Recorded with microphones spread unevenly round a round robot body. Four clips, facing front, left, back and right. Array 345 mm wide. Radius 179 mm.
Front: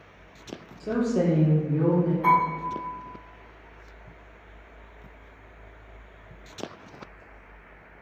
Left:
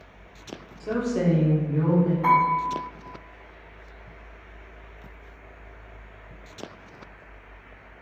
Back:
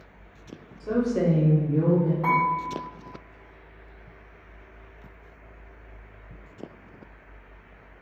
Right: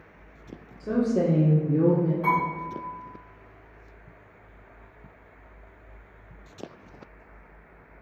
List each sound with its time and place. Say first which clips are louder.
0.8 s a woman speaking: right 1 dB, even; 5° left, 0.8 m; by 2.1 s 125° right, 1.2 m
2.2 s dishes clattering: left 5 dB, front 2 dB; 175° right, 1.9 m